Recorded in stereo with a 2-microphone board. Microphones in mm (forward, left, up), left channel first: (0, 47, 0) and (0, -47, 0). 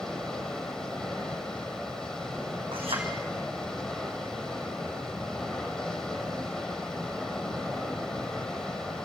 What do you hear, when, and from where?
0.0 s running water: 5° left (ahead or behind), 3.5 m
2.7 s a clink: 80° right, 4.5 m